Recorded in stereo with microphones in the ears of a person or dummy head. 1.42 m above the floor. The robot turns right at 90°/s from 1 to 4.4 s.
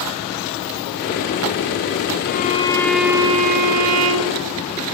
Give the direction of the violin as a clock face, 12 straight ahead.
8 o'clock.